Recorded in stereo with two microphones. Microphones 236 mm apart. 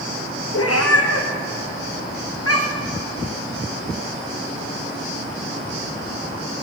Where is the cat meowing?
80° left, 2 m; by 3.0 s 75° left (ahead or behind), 3 m.